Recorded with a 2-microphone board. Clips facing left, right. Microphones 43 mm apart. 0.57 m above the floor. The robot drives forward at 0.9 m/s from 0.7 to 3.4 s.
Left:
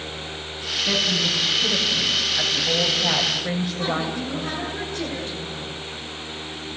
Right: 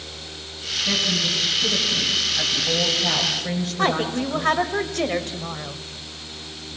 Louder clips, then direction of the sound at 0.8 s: Left 1 dB; 5° left (ahead or behind).